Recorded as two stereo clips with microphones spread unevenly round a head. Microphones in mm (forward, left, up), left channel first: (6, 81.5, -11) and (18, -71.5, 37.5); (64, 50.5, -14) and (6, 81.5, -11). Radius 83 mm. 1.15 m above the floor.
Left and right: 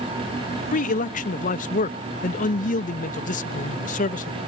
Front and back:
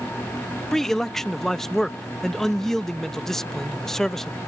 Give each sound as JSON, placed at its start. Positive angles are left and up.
{"t": 0.7, "sound": "a man speaking", "azimuth_deg": 55}